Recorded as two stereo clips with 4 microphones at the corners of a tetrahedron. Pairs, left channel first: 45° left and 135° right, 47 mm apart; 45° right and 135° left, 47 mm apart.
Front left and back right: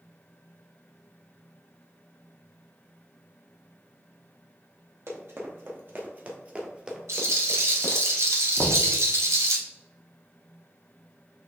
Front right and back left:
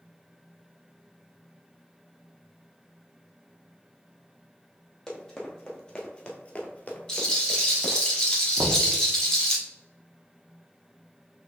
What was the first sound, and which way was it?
Running footsteps, 120° right.